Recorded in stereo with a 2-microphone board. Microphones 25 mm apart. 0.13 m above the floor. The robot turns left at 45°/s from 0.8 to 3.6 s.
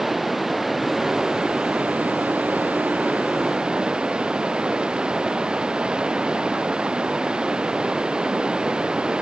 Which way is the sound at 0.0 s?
10° right.